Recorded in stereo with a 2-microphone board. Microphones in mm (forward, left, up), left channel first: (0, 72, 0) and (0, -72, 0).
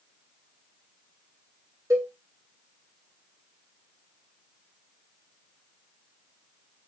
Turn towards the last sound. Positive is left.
turn(degrees=-20)  # may be behind; listen again after turning